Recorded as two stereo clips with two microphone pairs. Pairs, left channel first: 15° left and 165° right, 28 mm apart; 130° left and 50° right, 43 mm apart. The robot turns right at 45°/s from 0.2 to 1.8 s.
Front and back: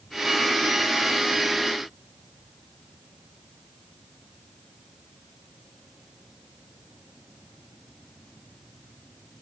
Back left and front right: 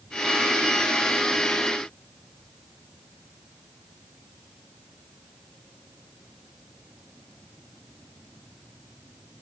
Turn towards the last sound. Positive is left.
No sound to turn to.